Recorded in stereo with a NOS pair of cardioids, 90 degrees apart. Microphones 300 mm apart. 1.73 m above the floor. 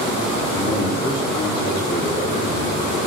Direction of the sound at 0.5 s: 10° left.